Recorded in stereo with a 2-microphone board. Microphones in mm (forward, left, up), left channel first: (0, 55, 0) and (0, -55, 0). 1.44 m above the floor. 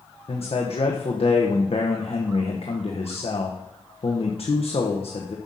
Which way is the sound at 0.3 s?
60° left (ahead or behind).